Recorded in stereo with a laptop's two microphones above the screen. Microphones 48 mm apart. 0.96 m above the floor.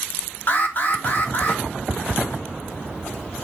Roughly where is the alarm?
Left.